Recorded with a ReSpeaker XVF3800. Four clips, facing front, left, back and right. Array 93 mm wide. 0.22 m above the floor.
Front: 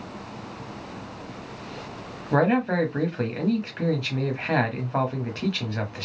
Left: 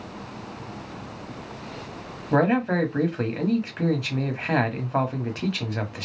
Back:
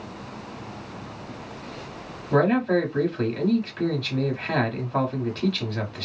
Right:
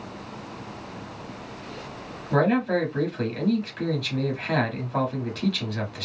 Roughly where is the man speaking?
Ahead left.